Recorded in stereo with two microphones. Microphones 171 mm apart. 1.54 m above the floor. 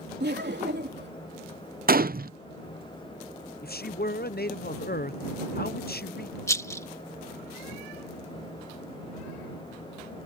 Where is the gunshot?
60° right (ahead or behind).